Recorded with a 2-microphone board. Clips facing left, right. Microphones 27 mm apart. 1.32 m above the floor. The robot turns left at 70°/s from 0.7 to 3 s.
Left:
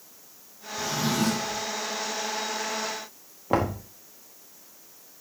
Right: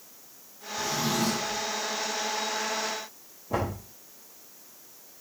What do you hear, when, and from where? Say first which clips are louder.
0.8 s a drawer: left 1 dB; 160° left, 5 m; by 1.6 s 100° left, 5 m
3.5 s knocking: left 5 dB; 60° left (ahead or behind), 1.6 m